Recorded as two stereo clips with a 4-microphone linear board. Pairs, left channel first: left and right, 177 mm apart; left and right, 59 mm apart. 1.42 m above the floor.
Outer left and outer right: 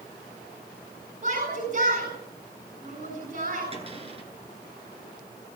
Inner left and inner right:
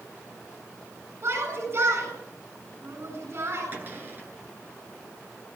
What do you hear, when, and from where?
1.2 s a shout: 55° right (ahead or behind), 8 m
3.7 s a cupboard door: 35° right (ahead or behind), 9.5 m